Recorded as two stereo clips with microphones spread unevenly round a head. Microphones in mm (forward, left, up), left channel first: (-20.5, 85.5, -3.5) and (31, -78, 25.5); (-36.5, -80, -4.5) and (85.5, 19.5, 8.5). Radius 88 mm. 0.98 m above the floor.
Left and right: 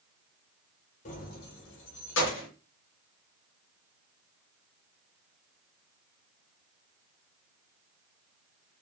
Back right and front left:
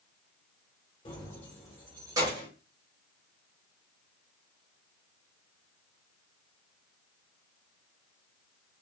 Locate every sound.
1.1 s keys jangling: 155° left, 0.6 m; by 2.5 s 105° left, 1.0 m